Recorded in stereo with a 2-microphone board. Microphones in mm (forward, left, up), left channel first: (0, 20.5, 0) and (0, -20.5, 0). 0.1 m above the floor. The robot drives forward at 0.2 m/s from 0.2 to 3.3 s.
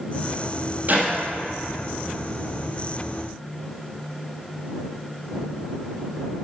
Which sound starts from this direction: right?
A clap, at 0.9 s.